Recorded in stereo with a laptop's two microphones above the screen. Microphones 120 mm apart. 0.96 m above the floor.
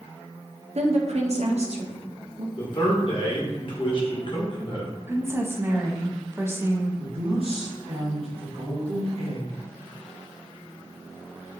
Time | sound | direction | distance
0.8 | a woman speaking | 65° right (ahead or behind) | 0.6 m
2.6 | a man speaking | 45° left (ahead or behind) | 0.8 m
5.1 | a woman speaking | 20° right (ahead or behind) | 0.7 m
7.0 | a woman speaking | 60° right (ahead or behind) | 1.1 m